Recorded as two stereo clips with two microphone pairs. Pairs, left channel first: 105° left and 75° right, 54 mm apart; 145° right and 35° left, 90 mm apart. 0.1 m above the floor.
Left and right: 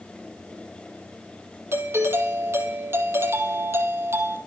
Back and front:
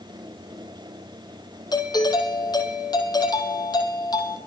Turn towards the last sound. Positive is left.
turn(degrees=-110)